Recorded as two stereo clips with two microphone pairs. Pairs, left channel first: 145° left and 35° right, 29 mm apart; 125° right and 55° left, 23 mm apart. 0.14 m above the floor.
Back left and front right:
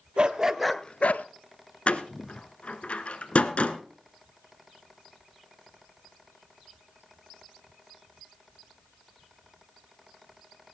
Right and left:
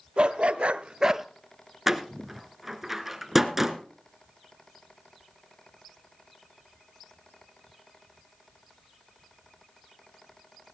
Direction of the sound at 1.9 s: 130° left.